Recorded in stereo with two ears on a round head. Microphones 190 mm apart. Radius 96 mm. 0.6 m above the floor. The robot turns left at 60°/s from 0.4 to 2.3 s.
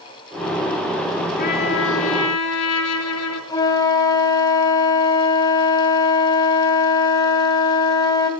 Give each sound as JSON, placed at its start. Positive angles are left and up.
{"t": 1.4, "sound": "a trumpet", "azimuth_deg": 140, "distance_m": 3.0}
{"t": 3.5, "sound": "a flute", "side_deg": 20, "distance_m": 3.0}